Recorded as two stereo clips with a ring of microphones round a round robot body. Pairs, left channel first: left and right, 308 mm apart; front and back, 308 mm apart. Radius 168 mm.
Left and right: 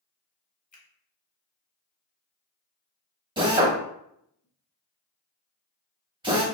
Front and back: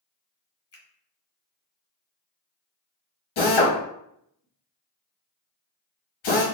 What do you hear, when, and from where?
0.7 s a finger snap: 30° left, 1.3 m
3.4 s a drill: 15° right, 1.0 m